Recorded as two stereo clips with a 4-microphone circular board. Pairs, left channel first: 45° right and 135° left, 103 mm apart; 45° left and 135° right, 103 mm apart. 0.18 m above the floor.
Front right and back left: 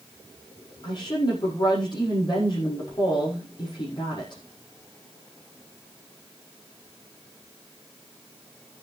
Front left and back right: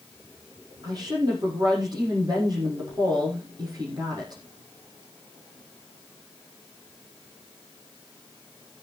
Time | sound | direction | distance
0.8 | a woman speaking | 90° right | 5.5 m